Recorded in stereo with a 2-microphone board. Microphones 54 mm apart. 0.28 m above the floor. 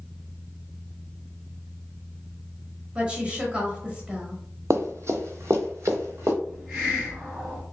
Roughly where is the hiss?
Centre.